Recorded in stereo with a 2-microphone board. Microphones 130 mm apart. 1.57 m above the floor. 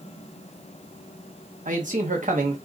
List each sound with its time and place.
1.6 s a man speaking: 85° right, 1.2 m